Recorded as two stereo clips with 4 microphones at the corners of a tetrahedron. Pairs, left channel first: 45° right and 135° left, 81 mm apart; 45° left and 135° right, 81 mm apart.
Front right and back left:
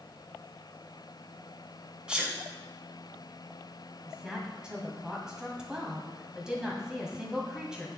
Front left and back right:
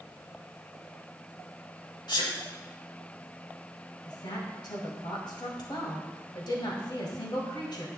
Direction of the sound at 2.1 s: 60° left.